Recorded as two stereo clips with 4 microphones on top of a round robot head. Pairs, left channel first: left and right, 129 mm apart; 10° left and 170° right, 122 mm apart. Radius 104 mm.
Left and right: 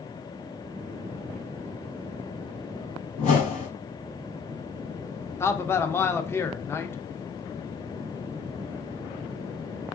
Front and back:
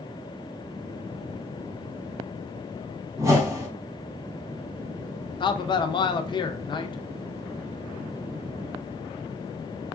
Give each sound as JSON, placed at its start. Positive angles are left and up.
{"t": 3.2, "sound": "a whoosh", "azimuth_deg": 125, "distance_m": 1.1}
{"t": 5.4, "sound": "a man speaking", "azimuth_deg": 30, "distance_m": 0.5}